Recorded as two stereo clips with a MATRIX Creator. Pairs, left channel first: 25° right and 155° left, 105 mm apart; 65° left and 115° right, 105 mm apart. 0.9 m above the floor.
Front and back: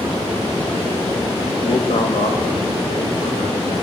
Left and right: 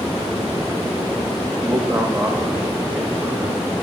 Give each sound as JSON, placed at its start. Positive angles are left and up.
{"t": 1.6, "sound": "a man speaking", "azimuth_deg": -50, "distance_m": 1.0}